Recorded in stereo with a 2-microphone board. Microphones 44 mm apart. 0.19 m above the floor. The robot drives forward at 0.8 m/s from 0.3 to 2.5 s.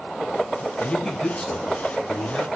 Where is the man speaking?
10° left (ahead or behind), 1.4 m; by 2.5 s 5° left (ahead or behind), 2.5 m.